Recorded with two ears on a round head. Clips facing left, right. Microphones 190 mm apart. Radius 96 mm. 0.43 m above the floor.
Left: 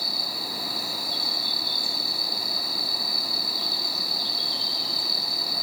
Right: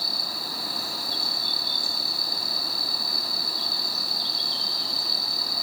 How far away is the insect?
About 4.5 m.